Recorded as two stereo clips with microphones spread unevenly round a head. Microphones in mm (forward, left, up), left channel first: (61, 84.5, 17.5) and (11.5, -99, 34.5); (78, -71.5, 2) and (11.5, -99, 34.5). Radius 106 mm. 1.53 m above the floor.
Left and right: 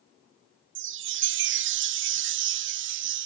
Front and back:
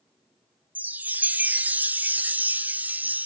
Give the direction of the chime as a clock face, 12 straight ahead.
4 o'clock.